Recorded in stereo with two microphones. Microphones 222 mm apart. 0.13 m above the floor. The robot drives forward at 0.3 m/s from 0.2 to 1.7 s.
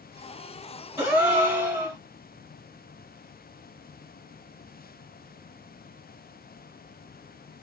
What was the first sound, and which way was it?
A gasp, 15° right (ahead or behind).